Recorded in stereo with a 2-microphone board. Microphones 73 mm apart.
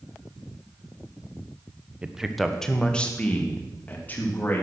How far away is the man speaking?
About 0.9 m.